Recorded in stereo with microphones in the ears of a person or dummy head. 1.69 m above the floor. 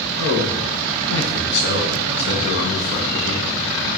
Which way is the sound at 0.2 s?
60° left (ahead or behind).